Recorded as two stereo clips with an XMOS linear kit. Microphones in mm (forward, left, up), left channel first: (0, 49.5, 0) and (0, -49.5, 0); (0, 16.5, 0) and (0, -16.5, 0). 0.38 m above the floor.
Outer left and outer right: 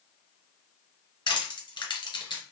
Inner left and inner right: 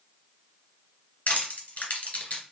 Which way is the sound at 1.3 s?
55° left (ahead or behind).